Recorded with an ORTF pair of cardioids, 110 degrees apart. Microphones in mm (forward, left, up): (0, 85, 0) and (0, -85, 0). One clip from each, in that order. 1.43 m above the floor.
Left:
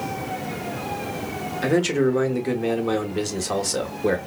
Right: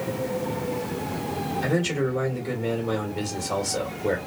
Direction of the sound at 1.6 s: 45° left.